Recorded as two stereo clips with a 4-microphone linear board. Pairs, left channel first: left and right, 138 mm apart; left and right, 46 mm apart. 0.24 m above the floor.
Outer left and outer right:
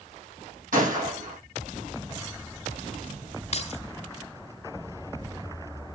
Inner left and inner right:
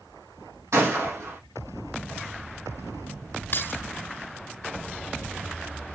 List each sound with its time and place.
0.7 s a gunshot: 80° right, 8 m
3.5 s keys jangling: 50° left (ahead or behind), 1.3 m